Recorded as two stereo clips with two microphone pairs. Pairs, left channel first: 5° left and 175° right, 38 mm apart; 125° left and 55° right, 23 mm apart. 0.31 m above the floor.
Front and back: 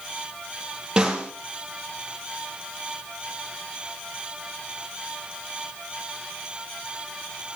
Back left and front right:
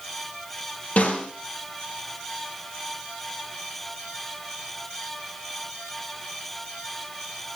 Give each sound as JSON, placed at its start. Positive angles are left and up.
{"t": 1.0, "sound": "a snare drum", "azimuth_deg": 120, "distance_m": 4.5}